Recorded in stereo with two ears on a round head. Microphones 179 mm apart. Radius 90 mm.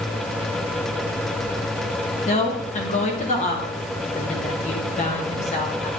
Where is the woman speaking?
35° left (ahead or behind), 1.3 m.